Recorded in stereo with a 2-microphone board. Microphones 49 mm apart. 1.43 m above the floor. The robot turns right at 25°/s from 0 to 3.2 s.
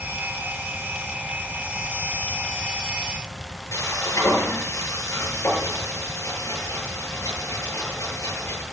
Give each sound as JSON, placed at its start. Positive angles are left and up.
{"t": 3.7, "sound": "frying", "side_deg": 80, "distance_m": 9.5}